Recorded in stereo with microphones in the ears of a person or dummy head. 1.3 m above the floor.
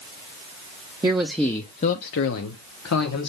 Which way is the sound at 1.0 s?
15° right (ahead or behind).